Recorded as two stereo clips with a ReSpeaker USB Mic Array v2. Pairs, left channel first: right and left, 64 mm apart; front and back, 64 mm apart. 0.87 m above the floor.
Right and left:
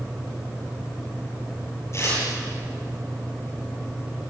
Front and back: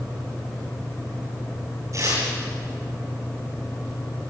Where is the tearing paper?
140° right, 10 m.